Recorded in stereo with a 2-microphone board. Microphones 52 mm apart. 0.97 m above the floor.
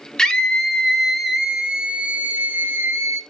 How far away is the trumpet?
I don't hear a trumpet.